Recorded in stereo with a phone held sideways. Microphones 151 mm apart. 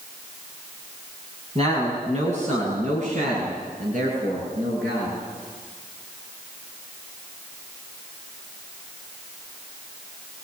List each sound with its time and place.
1.6 s a man speaking: 45° right (ahead or behind), 6 m; by 5.2 s 65° right (ahead or behind), 9.5 m